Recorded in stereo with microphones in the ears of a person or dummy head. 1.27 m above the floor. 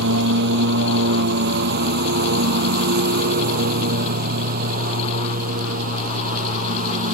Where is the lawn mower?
70° right (ahead or behind); by 7.2 s 45° right (ahead or behind).